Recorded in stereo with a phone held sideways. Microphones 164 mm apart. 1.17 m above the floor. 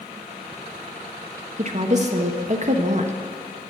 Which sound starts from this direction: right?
A woman speaking, at 1.6 s.